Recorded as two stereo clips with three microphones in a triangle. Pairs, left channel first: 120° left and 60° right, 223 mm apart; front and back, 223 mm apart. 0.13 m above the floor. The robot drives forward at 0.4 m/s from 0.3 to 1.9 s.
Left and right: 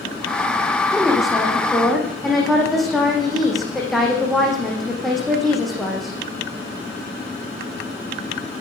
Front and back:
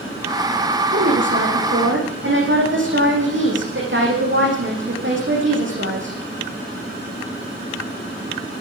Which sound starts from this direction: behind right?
A woman speaking, at 0.9 s.